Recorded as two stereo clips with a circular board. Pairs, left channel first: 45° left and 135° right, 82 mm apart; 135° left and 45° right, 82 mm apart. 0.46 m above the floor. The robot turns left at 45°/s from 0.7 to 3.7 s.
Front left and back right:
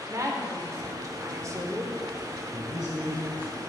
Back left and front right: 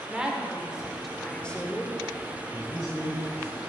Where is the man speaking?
160° left, 2.5 m; by 3.6 s 110° left, 2.5 m.